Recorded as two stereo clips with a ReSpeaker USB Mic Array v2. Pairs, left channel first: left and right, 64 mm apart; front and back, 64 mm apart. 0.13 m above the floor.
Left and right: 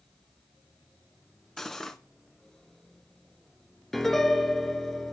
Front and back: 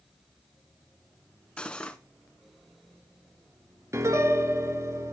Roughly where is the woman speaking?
I don't hear a woman speaking.